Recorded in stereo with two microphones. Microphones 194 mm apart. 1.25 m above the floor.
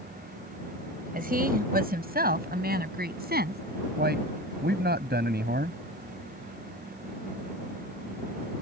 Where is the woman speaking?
50° right (ahead or behind); by 3.6 s 55° right (ahead or behind).